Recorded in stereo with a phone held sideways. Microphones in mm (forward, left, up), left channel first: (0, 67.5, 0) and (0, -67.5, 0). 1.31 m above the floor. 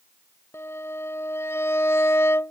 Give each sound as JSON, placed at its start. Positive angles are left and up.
{"t": 0.5, "sound": "a violin", "side_deg": 20}